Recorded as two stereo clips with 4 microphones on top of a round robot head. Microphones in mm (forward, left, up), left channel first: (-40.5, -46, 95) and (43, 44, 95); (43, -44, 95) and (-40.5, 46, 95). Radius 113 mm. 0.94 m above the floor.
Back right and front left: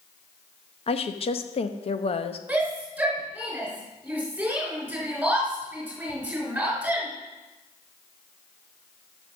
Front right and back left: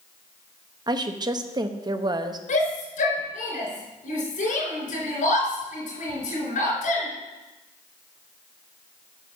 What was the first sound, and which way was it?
A woman speaking, 170° right.